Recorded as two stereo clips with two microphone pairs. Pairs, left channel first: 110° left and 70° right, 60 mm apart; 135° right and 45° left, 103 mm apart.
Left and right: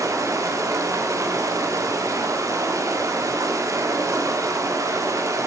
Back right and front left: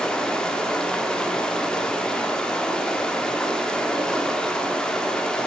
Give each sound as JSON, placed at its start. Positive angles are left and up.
{"t": 0.0, "sound": "running water", "azimuth_deg": -50, "distance_m": 1.3}